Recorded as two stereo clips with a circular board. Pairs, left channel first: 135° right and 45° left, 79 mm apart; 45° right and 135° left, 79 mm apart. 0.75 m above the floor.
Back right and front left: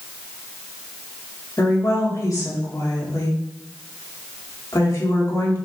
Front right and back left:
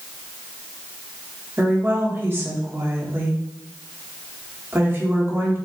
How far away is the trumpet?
No trumpet in this recording.